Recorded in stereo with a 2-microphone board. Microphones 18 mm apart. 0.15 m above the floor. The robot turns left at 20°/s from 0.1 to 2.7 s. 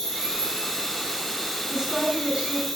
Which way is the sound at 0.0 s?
155° left.